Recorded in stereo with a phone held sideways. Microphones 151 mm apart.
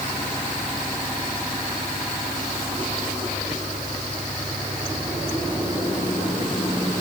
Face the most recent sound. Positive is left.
No sound to turn to.